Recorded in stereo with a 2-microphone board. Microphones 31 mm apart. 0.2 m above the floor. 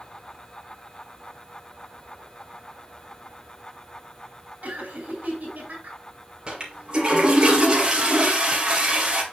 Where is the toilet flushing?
30° right (ahead or behind), 3 m.